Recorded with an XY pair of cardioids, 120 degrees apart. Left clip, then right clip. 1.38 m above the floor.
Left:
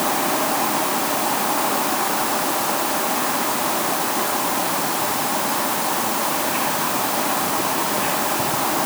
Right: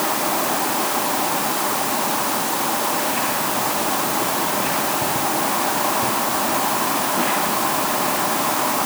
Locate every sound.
Only background noise.